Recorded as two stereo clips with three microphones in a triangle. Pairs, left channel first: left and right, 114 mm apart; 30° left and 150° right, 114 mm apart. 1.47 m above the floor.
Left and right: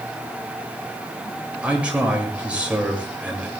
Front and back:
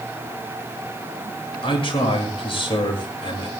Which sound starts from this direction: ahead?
A man speaking, at 1.6 s.